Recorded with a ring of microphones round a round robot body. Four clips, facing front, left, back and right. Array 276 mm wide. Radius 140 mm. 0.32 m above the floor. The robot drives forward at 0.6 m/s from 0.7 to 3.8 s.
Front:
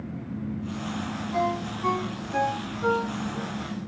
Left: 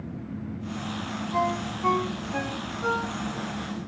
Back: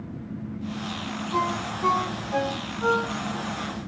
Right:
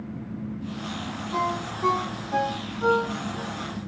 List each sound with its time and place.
1.3 s a ringtone: 120° right, 8 m; by 3.5 s 125° right, 9 m